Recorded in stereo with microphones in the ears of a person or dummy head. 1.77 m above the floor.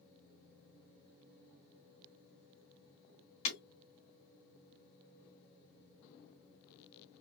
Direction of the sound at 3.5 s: 40° left (ahead or behind).